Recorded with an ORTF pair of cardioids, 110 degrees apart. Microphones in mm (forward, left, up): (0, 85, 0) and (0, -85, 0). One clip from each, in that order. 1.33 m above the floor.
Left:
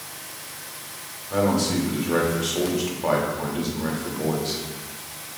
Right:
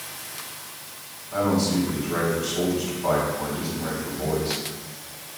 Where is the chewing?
No chewing in this recording.